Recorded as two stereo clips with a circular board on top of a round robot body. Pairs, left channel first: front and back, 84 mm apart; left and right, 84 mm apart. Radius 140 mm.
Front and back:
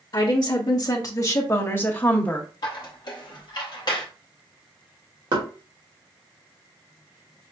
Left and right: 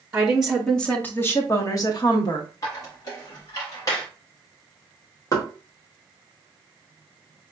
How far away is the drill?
I don't hear a drill.